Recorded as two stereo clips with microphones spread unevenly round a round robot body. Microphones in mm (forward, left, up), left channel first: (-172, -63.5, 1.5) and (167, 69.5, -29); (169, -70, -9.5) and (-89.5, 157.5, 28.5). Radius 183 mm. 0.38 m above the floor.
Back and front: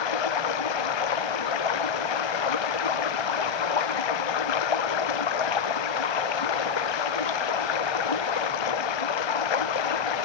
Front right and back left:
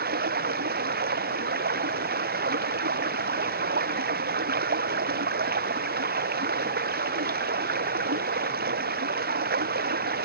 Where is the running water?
155° right.